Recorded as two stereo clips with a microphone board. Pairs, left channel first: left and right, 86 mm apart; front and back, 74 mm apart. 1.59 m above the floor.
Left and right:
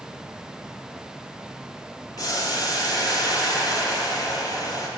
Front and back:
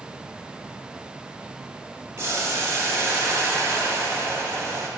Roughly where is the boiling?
Behind left.